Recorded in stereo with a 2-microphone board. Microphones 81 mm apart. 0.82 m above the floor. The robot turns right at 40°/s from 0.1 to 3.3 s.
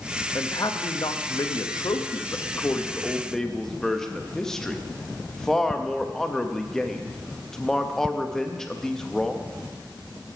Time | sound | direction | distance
0.3 | a man speaking | 55° left | 0.6 m